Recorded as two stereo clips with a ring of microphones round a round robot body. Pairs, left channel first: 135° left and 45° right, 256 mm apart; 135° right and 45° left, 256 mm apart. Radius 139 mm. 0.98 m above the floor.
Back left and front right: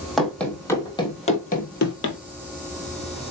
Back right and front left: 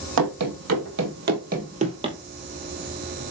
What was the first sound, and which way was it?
Running footsteps, 45° left.